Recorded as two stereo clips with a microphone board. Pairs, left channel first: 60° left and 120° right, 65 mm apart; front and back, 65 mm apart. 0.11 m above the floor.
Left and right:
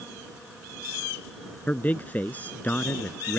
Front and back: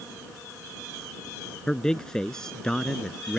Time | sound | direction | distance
1.7 | a man speaking | 65° left | ?